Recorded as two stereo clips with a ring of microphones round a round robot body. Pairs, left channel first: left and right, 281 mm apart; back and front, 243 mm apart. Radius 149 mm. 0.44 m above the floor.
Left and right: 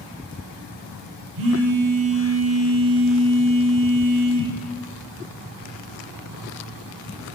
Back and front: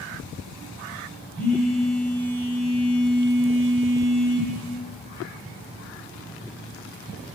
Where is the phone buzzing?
95° right, 2.5 m.